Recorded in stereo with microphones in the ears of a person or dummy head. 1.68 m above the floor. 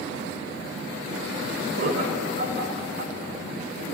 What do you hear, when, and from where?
1.8 s laughter: 55° right (ahead or behind), 4.5 m